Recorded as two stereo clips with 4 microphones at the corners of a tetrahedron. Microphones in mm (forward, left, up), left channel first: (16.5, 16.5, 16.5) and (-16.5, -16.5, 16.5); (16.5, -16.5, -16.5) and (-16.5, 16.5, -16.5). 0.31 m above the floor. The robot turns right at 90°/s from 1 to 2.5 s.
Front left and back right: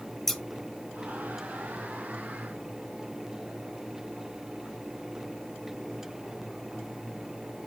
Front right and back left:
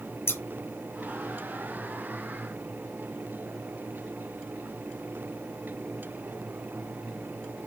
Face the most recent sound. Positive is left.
turn(degrees=95)